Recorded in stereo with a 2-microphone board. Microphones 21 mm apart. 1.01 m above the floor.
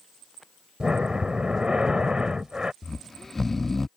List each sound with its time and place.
0.8 s breathing: 40° right (ahead or behind)
2.8 s snoring: 15° left (ahead or behind)